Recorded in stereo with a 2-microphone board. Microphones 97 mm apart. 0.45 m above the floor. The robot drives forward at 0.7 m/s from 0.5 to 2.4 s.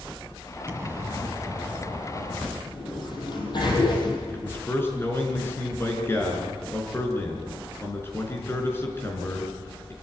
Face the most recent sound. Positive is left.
turn(degrees=25)  # may be behind; listen again after turning